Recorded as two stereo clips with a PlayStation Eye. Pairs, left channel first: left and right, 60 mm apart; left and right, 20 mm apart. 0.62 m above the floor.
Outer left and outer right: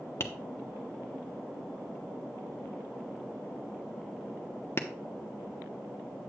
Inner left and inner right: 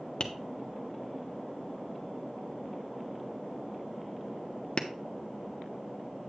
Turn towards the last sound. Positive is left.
turn(degrees=45)  # may be behind; listen again after turning